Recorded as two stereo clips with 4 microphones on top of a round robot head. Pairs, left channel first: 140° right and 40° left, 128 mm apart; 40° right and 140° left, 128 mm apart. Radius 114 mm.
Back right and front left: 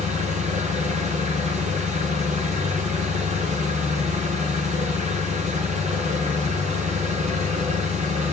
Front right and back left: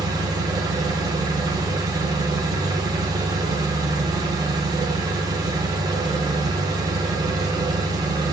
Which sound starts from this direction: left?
An engine running, at 0.0 s.